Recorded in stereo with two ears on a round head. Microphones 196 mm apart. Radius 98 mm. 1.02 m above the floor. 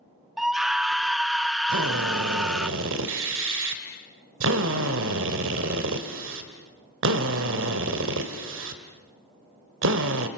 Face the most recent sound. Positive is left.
turn(degrees=-60)  # may be behind; listen again after turning